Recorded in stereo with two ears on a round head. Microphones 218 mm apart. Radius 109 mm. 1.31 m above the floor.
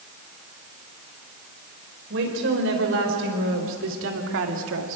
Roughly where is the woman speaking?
Right.